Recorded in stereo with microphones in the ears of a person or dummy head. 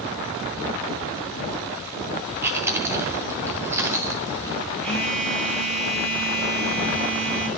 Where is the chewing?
10° right (ahead or behind), 1.0 m.